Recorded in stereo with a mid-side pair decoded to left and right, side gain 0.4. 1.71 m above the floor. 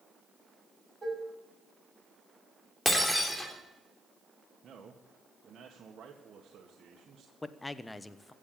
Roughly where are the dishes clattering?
Ahead right.